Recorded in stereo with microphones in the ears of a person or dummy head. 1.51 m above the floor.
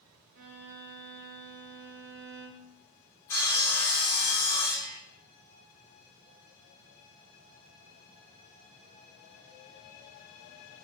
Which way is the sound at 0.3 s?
55° right (ahead or behind).